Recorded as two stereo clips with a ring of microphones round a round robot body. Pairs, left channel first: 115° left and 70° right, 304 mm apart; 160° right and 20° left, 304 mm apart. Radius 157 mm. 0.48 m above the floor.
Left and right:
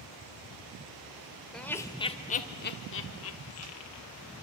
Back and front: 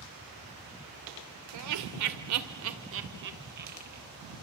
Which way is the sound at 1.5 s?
25° left.